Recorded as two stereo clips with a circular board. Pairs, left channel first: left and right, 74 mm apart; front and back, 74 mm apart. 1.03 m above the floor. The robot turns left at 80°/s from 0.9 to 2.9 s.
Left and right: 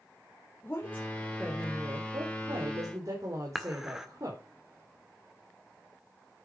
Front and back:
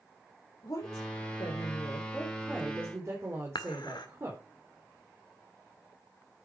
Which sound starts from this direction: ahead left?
A woman speaking, at 0.6 s.